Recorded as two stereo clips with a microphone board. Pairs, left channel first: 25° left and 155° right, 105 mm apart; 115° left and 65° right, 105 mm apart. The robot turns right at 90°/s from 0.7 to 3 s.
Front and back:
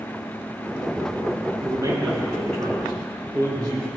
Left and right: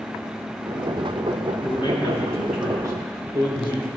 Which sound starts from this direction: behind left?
A man speaking, at 1.6 s.